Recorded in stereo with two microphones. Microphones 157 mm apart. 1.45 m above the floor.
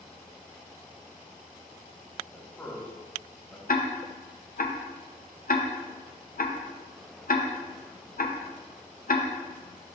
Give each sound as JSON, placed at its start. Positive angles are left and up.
{"t": 2.3, "sound": "a man speaking", "side_deg": 15, "distance_m": 2.0}
{"t": 3.7, "sound": "ticking", "side_deg": 65, "distance_m": 0.7}